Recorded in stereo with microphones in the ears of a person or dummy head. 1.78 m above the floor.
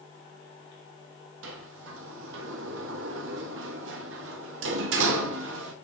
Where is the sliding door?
75° right (ahead or behind), 2.5 m.